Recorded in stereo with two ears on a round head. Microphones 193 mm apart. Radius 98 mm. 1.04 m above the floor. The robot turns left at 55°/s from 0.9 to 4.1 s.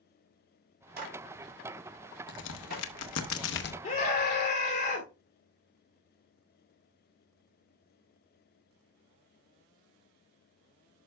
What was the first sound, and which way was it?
A clap, 50° right (ahead or behind).